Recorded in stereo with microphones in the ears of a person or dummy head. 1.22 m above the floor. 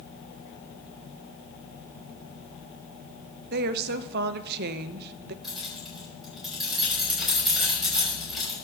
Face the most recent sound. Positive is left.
turn(degrees=0)  # may be behind; listen again after turning